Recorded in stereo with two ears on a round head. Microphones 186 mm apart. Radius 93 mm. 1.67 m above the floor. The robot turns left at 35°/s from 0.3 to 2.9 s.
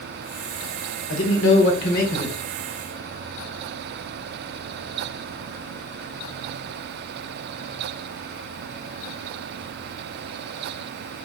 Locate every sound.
1.1 s a man speaking: 75° left, 1.0 m; by 2.4 s 30° left, 1.0 m